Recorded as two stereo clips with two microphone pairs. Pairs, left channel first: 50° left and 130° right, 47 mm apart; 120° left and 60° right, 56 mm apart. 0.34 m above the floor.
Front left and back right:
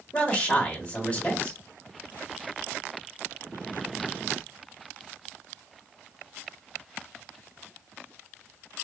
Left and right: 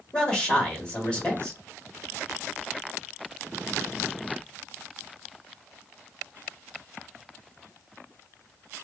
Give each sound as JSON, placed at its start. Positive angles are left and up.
{"t": 0.1, "sound": "a man speaking", "azimuth_deg": 70, "distance_m": 1.2}